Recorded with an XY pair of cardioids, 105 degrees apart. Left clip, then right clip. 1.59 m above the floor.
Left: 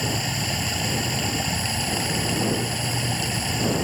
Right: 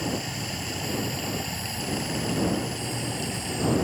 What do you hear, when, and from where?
0.0 s running water: 45° left